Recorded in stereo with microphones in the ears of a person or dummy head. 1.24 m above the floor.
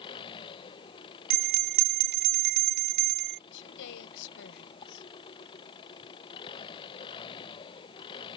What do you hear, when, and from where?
0.0 s an engine running: 25° left (ahead or behind)
1.3 s a bell: 55° right (ahead or behind)
3.5 s a woman speaking: 70° left (ahead or behind)